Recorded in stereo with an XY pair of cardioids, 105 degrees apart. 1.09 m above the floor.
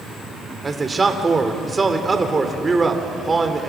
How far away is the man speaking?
About 3.5 m.